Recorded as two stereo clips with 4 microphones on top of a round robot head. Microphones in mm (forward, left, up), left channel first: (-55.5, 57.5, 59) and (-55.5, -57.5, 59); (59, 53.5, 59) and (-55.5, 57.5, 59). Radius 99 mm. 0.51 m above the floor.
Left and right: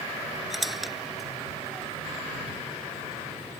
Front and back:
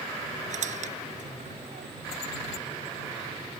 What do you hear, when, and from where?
0.5 s a squeak: straight behind